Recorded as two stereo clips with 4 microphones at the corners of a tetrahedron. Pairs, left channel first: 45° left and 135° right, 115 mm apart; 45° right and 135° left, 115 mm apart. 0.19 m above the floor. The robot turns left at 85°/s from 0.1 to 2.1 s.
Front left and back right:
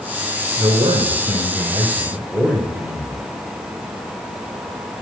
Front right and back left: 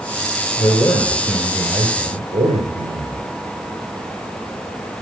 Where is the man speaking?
70° right, 1.9 m; by 3.3 s 160° left, 1.9 m.